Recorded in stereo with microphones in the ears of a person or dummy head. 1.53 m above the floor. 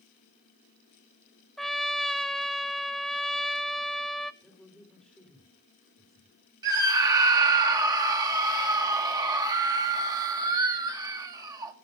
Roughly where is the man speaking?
Centre.